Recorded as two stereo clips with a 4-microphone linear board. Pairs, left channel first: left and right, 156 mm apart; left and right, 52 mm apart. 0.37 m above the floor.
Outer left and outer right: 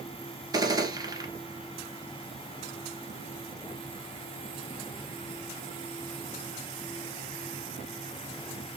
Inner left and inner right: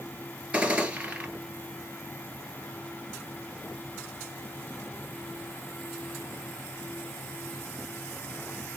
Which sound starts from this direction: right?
A gunshot, at 0.5 s.